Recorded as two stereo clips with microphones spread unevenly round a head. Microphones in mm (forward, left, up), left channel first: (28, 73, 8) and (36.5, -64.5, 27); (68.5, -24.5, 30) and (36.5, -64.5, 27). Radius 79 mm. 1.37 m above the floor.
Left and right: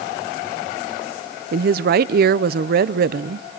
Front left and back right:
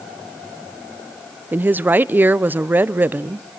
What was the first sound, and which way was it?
A woman speaking, 75° right.